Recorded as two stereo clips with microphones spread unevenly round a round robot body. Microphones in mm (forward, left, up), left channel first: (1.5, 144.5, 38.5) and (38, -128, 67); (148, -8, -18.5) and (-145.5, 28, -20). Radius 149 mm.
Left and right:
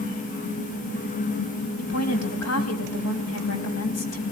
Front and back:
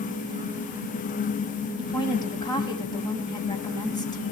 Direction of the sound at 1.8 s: 70° left.